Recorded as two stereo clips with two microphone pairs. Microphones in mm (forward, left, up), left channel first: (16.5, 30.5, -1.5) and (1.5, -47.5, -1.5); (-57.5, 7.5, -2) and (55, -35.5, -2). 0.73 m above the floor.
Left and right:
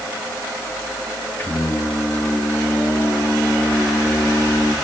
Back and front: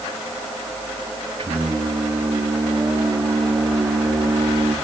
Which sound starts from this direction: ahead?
Singing, at 1.4 s.